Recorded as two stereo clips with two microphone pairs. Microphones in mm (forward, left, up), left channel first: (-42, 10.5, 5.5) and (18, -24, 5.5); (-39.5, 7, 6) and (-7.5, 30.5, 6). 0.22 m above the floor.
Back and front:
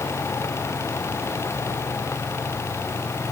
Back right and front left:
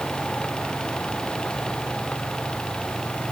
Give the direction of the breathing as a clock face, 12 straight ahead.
I don't hear breathing.